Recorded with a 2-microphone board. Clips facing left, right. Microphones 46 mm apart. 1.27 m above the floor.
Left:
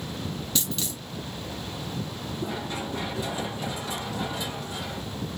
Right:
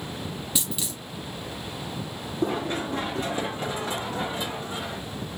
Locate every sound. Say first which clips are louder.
0.6 s a dropped coin: left 1 dB; 10° right (ahead or behind), 1.7 m
2.4 s running footsteps: right 6 dB; 55° right (ahead or behind), 3 m; by 5.0 s 25° right (ahead or behind), 2 m